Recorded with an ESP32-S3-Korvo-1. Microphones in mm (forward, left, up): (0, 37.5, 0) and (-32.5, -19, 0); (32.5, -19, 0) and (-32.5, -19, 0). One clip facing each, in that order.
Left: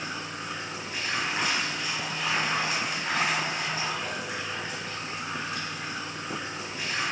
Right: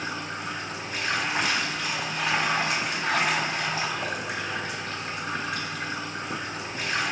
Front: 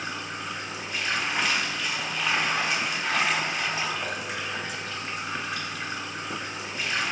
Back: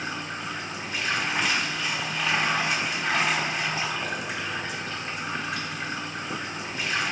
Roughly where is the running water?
Right.